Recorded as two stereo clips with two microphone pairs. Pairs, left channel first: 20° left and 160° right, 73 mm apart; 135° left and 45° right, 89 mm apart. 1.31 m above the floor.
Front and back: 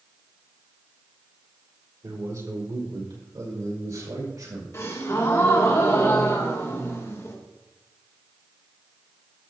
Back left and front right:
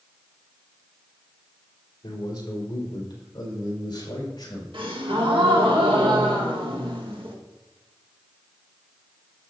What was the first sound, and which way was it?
A man speaking, 175° left.